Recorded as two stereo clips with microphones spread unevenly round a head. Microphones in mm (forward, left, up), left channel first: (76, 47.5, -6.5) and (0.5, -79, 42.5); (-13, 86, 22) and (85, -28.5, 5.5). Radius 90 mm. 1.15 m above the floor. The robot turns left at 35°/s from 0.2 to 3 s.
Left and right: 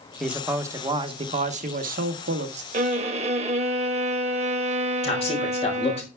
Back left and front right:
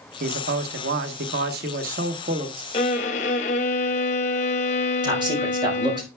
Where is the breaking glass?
No breaking glass in this recording.